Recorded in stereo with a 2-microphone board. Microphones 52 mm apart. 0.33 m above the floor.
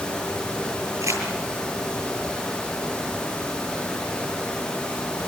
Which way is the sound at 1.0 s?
80° right.